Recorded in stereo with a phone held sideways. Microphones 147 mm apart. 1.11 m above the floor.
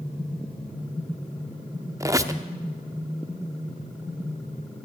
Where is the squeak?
20° right (ahead or behind), 0.7 m.